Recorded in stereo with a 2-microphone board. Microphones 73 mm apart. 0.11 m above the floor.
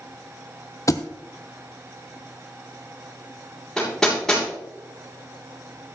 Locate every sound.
0.9 s a thud: 45° left (ahead or behind), 0.9 m
3.8 s hammering: 10° left (ahead or behind), 7 m